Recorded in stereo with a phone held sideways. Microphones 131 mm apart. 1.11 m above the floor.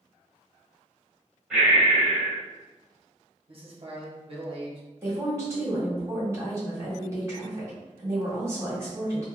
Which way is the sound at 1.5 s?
5° right (ahead or behind).